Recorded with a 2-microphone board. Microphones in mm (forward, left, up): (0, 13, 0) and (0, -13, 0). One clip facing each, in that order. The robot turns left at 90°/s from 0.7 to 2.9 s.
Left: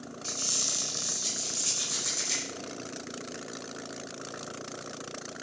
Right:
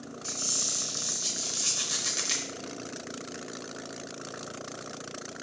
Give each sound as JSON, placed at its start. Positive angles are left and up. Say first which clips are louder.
{"t": 0.2, "sound": "a squeak", "louder": "left 1 dB", "azimuth_deg": 30, "distance_m": 0.6}